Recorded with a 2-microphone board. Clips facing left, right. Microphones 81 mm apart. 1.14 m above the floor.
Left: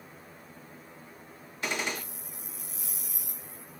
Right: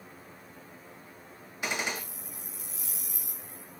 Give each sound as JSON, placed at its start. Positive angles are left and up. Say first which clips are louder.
{"t": 1.6, "sound": "a gunshot", "louder": "even", "side_deg": -10, "distance_m": 1.0}